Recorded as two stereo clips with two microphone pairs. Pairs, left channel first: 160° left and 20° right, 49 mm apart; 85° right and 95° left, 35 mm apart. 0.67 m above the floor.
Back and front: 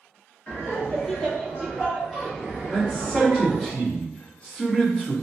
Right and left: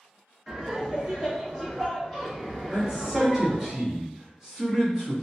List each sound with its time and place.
0.5 s laughter: 165° right, 1.5 m; by 3.7 s 20° right, 1.4 m
2.7 s a man speaking: 145° left, 1.1 m